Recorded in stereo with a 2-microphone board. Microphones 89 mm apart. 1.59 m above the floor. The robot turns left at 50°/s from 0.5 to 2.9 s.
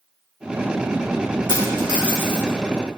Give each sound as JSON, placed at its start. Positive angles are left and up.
{"t": 1.5, "sound": "a dropped coin", "side_deg": -45, "distance_m": 1.5}